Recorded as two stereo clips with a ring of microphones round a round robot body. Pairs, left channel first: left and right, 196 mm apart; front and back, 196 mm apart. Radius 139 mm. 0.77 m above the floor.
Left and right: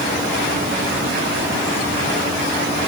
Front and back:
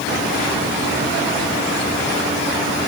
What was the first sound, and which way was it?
Only background noise.